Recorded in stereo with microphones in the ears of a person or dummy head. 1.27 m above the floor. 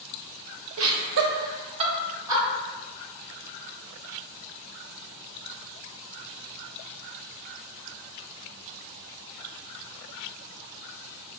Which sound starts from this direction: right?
Laughter, at 0.8 s.